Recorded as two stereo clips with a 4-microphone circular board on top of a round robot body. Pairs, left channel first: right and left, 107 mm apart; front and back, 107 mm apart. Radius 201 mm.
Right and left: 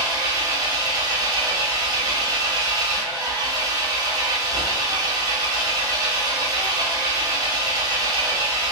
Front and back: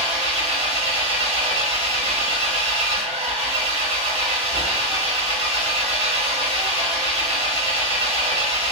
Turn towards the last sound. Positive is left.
turn(degrees=145)